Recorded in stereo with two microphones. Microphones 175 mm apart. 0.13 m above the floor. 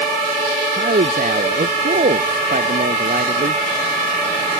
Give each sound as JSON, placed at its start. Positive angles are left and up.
{"t": 0.8, "sound": "a man speaking", "side_deg": -55}